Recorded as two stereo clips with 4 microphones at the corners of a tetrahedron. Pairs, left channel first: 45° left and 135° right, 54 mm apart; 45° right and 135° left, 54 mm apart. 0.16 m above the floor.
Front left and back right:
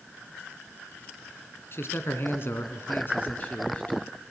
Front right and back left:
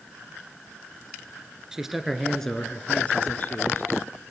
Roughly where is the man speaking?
Ahead left.